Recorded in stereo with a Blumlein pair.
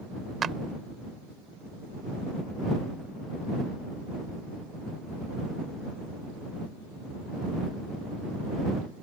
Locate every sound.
0.4 s a clap: 20° right